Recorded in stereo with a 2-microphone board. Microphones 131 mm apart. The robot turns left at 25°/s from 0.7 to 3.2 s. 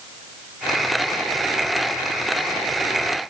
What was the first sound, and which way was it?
Only background noise.